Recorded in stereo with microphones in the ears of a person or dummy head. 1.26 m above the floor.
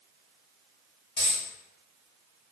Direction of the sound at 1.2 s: 20° left (ahead or behind).